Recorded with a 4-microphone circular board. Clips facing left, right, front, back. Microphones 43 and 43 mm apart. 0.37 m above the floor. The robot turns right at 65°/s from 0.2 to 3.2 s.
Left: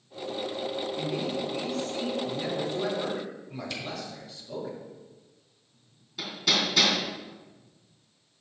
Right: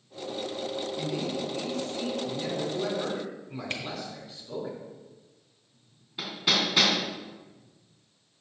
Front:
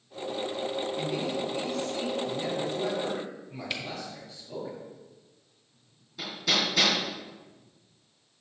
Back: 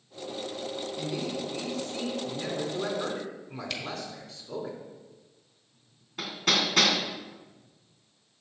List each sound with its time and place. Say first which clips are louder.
1.0 s a man speaking: even, front 2 dB; 55° left, 4 m; by 4.7 s 160° right, 4 m
3.7 s a camera shutter: right 3 dB, front 2 dB; 70° right, 1.4 m
6.2 s hammering: even, back 1 dB; 155° right, 3 m